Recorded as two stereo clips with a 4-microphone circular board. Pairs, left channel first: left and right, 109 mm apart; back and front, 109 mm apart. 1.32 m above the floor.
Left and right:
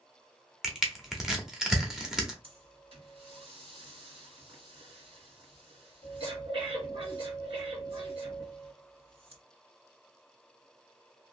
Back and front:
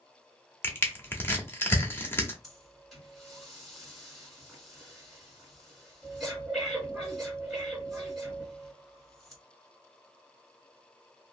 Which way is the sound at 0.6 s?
165° right.